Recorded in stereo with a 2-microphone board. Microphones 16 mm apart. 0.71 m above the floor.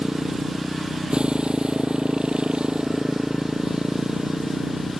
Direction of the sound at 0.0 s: 75° right (ahead or behind).